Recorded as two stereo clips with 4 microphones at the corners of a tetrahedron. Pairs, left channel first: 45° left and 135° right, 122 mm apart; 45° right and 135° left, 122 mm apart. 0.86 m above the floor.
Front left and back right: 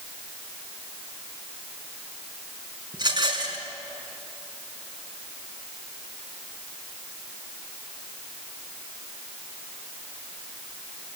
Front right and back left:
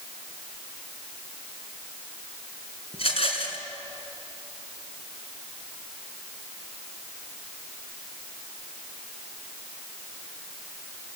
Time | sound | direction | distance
2.9 | a rattle | 80° right | 4 m